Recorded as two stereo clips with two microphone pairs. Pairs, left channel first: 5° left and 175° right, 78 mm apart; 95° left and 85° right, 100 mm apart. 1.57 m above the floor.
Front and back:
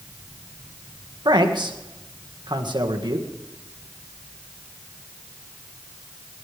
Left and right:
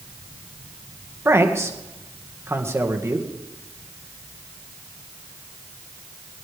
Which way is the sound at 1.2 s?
150° right.